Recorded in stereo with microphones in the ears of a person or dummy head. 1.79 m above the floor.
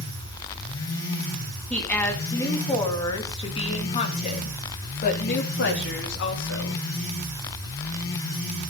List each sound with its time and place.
1.7 s a woman speaking: 5° left (ahead or behind), 3 m; by 6.8 s 60° left (ahead or behind), 4 m